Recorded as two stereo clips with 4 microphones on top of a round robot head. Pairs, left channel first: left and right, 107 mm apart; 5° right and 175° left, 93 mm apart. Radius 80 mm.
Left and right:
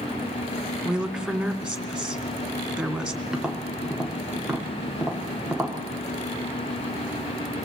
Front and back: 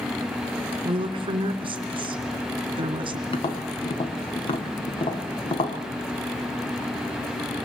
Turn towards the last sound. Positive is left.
turn(degrees=-5)